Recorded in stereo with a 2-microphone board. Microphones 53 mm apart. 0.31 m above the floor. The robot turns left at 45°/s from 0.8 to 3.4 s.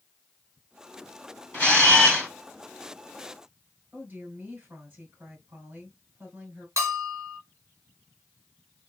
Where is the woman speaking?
40° right (ahead or behind), 2.5 m.